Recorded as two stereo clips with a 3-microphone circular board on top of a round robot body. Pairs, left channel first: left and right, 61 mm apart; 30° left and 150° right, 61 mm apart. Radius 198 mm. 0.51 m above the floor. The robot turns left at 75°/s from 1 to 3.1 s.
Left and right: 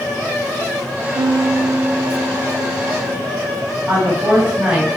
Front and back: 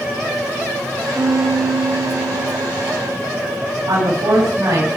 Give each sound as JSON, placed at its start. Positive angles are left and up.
{"t": 1.1, "sound": "a piano", "azimuth_deg": -90, "distance_m": 0.9}
{"t": 3.9, "sound": "a woman speaking", "azimuth_deg": -160, "distance_m": 5.0}